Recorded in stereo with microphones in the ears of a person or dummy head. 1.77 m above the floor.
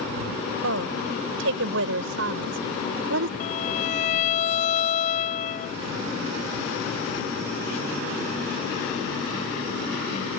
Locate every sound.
0.6 s a woman speaking: 65° right (ahead or behind); by 3.3 s 70° right (ahead or behind)
3.4 s a violin: 50° left (ahead or behind)